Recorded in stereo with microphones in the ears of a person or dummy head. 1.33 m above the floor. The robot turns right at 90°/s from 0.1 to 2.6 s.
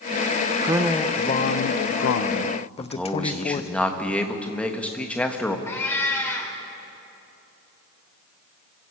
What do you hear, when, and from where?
0.6 s a man speaking: 20° right, 0.7 m; by 3.7 s 155° left, 0.7 m
2.8 s a man speaking: centre (ahead or behind), 1.4 m
5.7 s a cat meowing: 20° left (ahead or behind), 3 m